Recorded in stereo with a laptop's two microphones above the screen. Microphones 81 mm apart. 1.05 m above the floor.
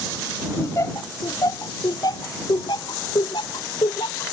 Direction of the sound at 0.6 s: 35° left (ahead or behind).